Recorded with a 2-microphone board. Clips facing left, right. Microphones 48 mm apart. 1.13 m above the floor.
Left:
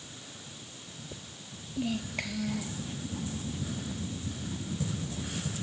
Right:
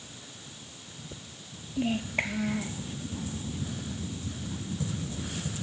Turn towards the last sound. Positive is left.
turn(degrees=-30)  # may be behind; listen again after turning